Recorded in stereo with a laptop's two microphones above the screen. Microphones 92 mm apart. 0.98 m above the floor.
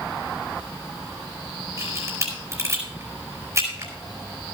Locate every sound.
1.8 s a camera shutter: 30° right (ahead or behind), 4.5 m